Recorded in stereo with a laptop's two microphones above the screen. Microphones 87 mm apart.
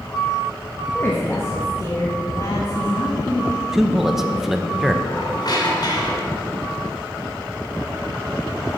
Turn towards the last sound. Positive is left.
turn(degrees=55)  # may be behind; listen again after turning